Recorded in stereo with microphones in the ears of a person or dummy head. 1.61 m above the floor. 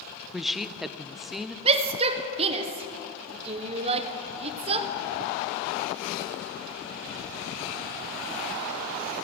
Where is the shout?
35° right (ahead or behind), 1.4 m.